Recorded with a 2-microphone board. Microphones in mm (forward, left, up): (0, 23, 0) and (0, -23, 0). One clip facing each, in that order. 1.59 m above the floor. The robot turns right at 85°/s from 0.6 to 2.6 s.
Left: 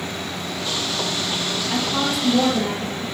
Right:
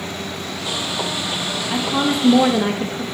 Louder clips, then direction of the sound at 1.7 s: Right 4 dB; straight behind.